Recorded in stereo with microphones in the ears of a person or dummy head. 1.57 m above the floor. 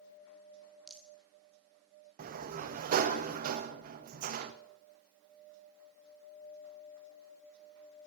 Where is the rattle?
5° right (ahead or behind), 0.8 m.